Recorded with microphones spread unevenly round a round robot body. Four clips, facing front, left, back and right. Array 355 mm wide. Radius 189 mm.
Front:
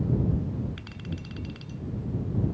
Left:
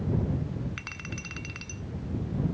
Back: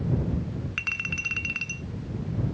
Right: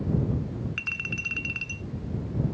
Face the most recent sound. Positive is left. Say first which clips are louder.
# right 3 dB, back 2 dB
turn(degrees=165)